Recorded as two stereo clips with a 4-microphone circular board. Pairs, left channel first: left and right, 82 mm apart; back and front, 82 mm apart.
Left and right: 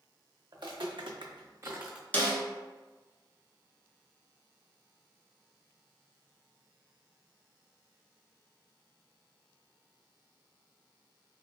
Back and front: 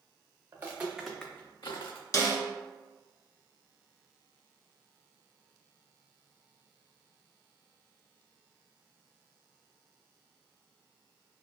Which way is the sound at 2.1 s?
155° left.